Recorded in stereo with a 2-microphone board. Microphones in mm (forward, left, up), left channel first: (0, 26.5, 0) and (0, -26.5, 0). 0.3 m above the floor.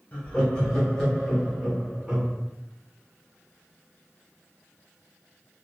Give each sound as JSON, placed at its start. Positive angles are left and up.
{"t": 0.1, "sound": "laughter", "side_deg": 30, "distance_m": 1.0}